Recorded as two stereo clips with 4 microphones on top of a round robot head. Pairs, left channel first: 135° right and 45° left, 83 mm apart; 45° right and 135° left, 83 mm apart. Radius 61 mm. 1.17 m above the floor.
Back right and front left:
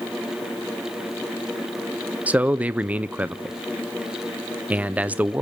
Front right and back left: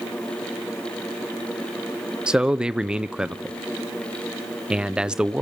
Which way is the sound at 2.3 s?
80° left.